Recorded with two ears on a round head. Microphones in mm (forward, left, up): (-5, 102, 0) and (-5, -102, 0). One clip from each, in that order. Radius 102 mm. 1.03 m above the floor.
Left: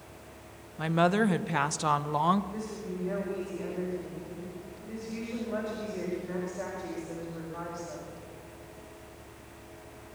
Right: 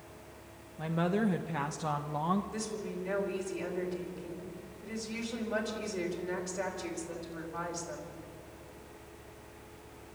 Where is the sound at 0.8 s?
35° left (ahead or behind), 0.9 m.